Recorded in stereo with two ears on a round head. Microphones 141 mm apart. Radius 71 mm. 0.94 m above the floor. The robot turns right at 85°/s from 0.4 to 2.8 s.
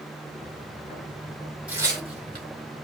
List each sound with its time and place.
1.7 s tearing paper: 10° right (ahead or behind), 2.5 m; by 2.5 s 75° right (ahead or behind), 2.5 m